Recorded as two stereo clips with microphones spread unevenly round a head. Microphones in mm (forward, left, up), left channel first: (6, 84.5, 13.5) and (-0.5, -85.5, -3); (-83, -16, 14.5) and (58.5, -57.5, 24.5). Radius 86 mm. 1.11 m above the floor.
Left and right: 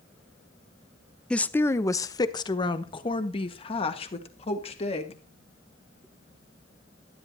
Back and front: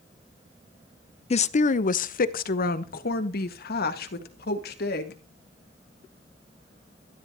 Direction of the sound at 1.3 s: 175° left.